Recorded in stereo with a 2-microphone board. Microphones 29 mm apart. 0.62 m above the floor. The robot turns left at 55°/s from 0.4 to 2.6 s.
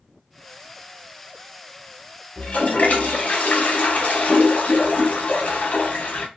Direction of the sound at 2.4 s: 55° left (ahead or behind).